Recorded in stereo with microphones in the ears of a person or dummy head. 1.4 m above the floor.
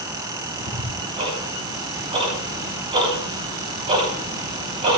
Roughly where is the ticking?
Right.